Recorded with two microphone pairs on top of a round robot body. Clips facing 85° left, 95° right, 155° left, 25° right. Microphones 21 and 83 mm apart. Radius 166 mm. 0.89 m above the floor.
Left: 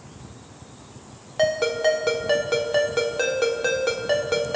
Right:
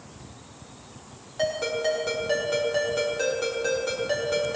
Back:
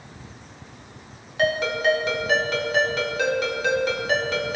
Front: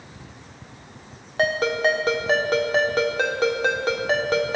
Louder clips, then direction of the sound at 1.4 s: Left 5 dB, front 1 dB; 30° left.